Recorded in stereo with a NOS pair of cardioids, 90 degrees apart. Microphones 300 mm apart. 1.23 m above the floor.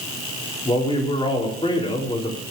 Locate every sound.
0.7 s a man speaking: 15° left, 3.5 m